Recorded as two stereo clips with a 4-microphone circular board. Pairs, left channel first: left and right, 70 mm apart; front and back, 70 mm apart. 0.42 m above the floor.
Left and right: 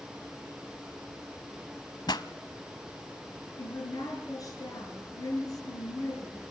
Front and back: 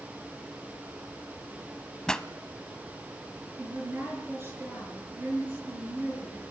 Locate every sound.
2.1 s a pop: 80° left, 0.8 m
3.6 s a woman speaking: 125° left, 6.5 m